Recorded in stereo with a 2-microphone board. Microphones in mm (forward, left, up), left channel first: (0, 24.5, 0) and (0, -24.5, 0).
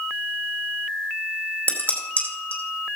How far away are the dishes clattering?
About 4 m.